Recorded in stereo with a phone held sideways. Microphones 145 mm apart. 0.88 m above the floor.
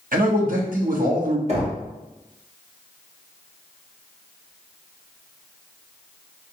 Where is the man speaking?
75° right (ahead or behind), 1.1 m.